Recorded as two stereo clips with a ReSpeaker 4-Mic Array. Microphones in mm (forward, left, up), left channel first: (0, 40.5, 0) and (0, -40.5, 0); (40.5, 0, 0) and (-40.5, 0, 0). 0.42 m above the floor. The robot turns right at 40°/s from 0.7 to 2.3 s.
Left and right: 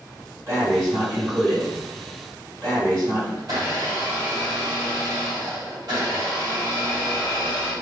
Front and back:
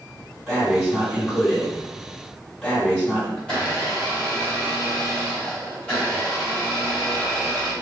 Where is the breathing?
130° right, 1.9 m; by 3.3 s 65° right, 1.9 m.